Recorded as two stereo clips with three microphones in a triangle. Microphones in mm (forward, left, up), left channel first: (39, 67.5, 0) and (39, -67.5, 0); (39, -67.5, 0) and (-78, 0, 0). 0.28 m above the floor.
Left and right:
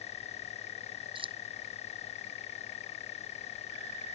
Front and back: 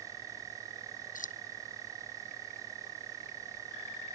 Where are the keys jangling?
40° right.